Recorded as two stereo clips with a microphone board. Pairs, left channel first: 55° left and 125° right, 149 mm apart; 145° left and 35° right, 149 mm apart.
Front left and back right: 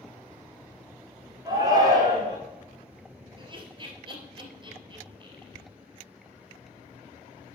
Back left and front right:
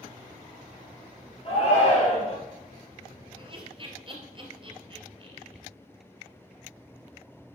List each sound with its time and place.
1.4 s a shout: straight behind, 2.5 m
3.4 s laughter: 80° right, 2 m